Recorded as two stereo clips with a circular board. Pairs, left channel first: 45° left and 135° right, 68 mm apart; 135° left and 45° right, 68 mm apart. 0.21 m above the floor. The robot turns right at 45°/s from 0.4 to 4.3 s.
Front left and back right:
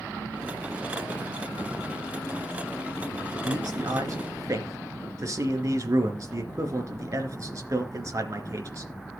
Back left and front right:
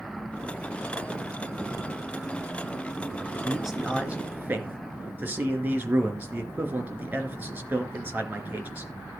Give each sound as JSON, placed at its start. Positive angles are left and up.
{"t": 3.3, "sound": "a man speaking", "azimuth_deg": -145, "distance_m": 3.0}